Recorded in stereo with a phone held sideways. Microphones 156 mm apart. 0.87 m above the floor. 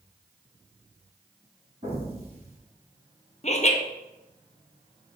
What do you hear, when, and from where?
1.8 s an explosion: 45° right (ahead or behind), 2.5 m
3.4 s laughter: 45° left (ahead or behind), 0.7 m